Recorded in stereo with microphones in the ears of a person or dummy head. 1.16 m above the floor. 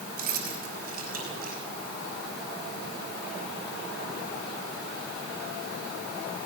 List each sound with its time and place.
0.2 s keys jangling: 60° right (ahead or behind), 5 m; by 1.6 s 55° right (ahead or behind), 6 m